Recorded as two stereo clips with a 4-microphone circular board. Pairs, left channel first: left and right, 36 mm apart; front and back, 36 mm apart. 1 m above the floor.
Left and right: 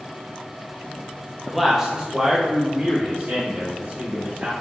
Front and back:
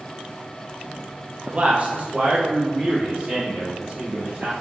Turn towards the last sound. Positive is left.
turn(degrees=-120)